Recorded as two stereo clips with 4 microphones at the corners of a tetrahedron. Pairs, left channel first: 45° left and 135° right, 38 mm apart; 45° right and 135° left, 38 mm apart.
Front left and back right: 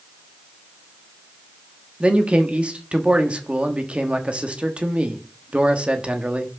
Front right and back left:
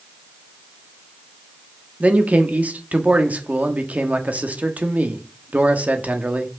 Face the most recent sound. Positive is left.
turn(degrees=170)